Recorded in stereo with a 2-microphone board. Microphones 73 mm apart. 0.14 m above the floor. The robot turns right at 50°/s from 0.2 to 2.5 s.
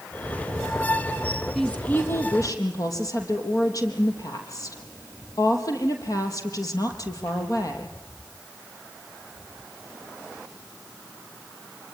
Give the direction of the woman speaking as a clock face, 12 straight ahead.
12 o'clock.